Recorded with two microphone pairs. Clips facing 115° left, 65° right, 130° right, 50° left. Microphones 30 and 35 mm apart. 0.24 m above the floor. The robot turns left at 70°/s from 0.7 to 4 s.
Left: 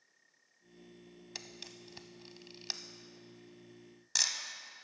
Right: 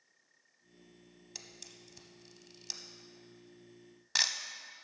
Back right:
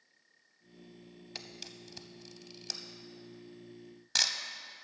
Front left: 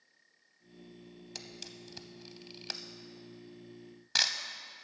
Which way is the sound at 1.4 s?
170° left.